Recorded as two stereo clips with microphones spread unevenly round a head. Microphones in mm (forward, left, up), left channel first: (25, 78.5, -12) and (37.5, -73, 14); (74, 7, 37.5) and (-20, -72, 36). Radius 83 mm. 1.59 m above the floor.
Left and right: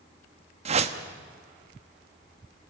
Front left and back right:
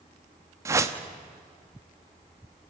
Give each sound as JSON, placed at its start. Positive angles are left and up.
{"t": 0.7, "sound": "a whoosh", "azimuth_deg": -80, "distance_m": 1.3}